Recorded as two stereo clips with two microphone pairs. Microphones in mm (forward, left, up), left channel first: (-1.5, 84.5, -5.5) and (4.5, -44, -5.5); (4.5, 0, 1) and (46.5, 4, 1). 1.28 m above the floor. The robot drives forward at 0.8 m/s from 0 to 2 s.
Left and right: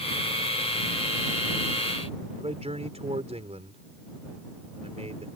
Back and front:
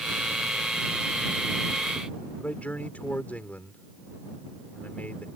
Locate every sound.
2.4 s a man speaking: 120° right